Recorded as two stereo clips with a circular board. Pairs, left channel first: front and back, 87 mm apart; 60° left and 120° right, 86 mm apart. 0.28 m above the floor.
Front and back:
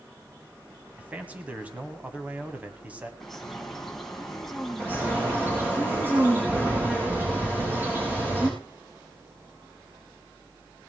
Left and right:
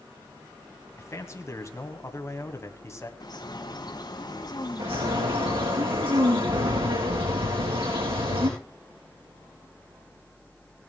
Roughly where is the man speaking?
Left.